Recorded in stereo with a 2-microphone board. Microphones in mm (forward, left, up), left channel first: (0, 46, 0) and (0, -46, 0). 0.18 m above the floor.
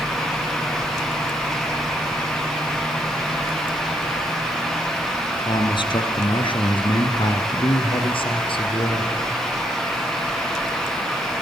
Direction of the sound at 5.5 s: 55° left (ahead or behind).